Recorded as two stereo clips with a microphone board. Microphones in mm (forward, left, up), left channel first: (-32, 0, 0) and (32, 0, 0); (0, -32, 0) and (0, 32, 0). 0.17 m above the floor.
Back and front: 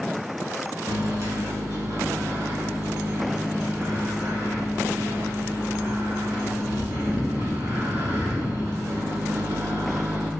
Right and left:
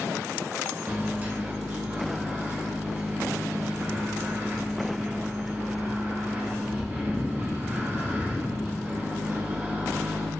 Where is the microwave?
30° left, 1.5 m.